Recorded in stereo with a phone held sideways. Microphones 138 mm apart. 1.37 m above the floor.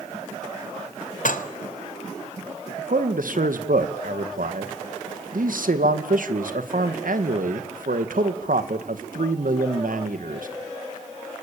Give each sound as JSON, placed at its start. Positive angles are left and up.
{"t": 1.2, "sound": "dishes clattering", "side_deg": 70, "distance_m": 1.2}
{"t": 2.8, "sound": "a man speaking", "side_deg": -80, "distance_m": 1.8}